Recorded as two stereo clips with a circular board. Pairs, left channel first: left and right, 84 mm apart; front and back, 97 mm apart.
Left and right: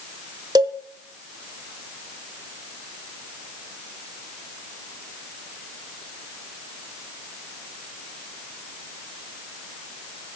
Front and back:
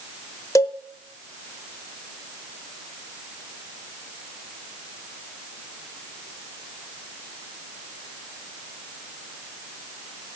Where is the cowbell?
55° right, 0.6 m.